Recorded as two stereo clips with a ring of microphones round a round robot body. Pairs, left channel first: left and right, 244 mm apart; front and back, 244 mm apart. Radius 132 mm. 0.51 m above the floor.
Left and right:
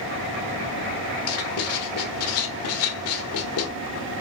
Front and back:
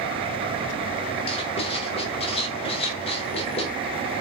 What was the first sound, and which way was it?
Writing, 70° left.